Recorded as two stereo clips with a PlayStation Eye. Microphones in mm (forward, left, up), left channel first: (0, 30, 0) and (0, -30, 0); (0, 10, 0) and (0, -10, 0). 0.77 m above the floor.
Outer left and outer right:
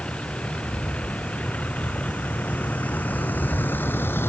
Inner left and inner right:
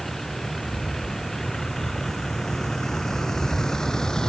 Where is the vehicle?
15° left (ahead or behind); by 4.3 s 40° left (ahead or behind).